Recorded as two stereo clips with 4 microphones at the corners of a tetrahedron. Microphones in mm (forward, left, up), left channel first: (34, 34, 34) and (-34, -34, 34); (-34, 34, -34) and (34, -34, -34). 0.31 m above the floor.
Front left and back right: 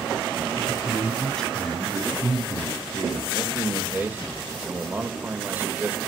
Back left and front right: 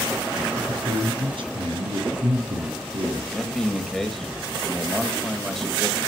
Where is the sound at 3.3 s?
140° right, 1.5 m.